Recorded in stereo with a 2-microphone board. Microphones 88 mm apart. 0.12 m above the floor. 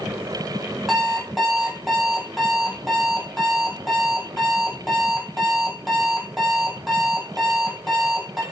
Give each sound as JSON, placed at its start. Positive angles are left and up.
{"t": 0.9, "sound": "an alarm clock", "side_deg": 0, "distance_m": 1.6}